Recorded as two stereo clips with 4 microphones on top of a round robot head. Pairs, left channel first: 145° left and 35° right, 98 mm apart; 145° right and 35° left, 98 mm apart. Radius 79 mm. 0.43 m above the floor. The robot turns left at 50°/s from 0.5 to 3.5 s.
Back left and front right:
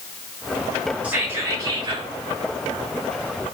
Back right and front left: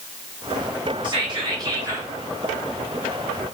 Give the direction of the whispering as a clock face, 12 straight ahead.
11 o'clock.